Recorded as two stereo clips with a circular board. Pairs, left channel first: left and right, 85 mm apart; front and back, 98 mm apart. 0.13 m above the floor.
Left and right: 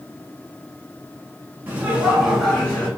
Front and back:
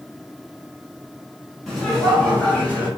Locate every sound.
1.7 s laughter: 90° right, 1.5 m; by 2.9 s 40° left, 1.5 m